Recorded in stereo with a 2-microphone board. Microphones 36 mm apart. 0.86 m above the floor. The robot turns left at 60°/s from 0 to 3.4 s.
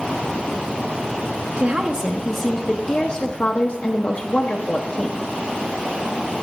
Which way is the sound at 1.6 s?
140° right.